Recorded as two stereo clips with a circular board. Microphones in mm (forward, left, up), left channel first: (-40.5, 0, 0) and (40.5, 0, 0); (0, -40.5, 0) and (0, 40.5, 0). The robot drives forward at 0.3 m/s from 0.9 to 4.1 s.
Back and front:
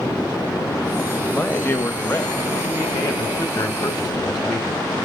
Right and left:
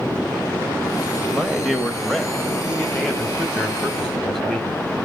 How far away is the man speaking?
About 0.9 m.